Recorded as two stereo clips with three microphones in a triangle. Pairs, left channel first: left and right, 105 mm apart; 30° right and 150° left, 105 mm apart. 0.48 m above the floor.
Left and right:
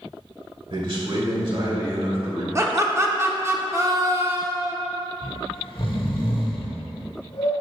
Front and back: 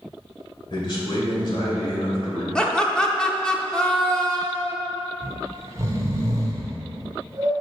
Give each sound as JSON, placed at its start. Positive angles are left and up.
{"t": 0.7, "sound": "a man speaking", "azimuth_deg": -70, "distance_m": 1.9}
{"t": 2.5, "sound": "laughter", "azimuth_deg": -105, "distance_m": 0.7}
{"t": 5.2, "sound": "snoring", "azimuth_deg": 100, "distance_m": 1.0}